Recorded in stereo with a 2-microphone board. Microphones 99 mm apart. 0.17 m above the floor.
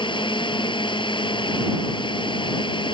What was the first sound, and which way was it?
A drone, 55° left (ahead or behind).